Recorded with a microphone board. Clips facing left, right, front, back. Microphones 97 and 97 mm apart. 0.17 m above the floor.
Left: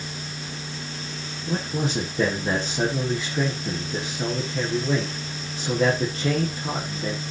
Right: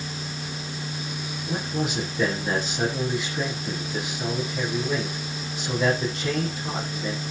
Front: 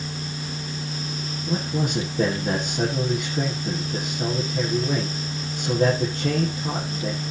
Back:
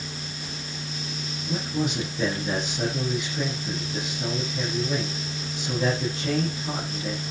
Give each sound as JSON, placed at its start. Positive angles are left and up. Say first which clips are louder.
{"t": 1.5, "sound": "a man speaking", "louder": "left 2 dB, front 2 dB", "azimuth_deg": 35, "distance_m": 6.0}